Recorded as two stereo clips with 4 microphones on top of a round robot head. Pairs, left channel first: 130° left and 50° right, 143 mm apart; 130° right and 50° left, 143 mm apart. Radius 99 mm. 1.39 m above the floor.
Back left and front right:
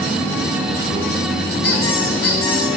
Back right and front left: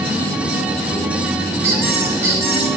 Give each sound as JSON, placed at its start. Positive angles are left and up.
{"t": 1.6, "sound": "a squeak", "azimuth_deg": 120, "distance_m": 4.0}